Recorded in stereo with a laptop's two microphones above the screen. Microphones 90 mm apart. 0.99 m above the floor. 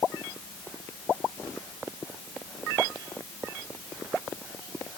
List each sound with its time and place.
Only background noise.